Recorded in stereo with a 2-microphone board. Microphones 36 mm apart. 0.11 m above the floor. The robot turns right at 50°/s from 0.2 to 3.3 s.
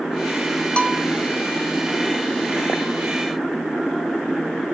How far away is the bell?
About 1.5 m.